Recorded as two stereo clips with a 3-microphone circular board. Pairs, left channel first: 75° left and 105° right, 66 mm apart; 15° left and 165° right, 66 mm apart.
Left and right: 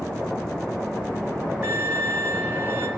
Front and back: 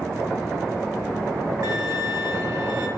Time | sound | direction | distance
1.6 | a violin | 165° right | 3 m